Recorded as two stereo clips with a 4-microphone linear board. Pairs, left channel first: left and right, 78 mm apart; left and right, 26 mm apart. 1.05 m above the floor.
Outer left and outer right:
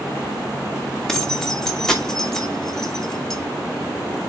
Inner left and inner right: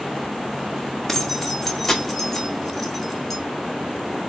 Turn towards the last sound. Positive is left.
turn(degrees=5)  # may be behind; listen again after turning